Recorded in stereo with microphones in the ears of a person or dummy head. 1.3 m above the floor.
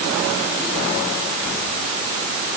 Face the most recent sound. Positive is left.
No sound to turn to.